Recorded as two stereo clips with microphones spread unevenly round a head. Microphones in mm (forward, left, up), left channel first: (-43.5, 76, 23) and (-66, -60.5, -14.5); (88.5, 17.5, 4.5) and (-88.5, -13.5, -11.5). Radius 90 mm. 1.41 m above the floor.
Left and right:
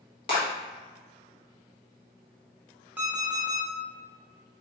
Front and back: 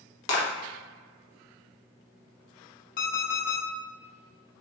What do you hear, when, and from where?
0.3 s a clap: 25° left, 1.4 m
3.0 s an alarm clock: 10° right, 1.0 m